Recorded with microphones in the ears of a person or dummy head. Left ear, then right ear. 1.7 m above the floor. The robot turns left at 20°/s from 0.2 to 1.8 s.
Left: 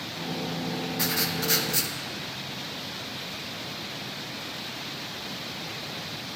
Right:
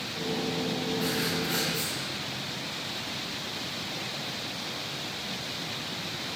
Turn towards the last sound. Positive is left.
turn(degrees=80)